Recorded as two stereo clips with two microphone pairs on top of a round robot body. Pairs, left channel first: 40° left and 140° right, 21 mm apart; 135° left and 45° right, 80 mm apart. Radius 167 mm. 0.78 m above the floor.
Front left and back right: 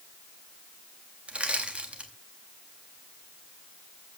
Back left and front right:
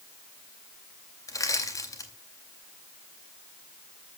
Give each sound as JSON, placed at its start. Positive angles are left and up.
{"t": 1.3, "sound": "crushing", "azimuth_deg": -175, "distance_m": 3.0}